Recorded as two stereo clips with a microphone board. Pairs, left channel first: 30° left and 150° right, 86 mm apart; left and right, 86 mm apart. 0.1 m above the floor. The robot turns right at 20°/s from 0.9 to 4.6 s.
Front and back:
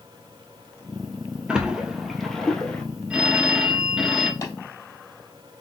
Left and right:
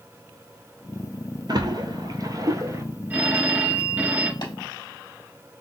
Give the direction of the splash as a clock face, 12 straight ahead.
2 o'clock.